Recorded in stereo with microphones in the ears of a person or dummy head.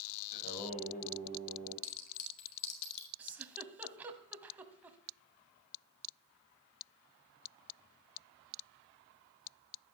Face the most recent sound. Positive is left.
turn(degrees=-10)  # may be behind; listen again after turning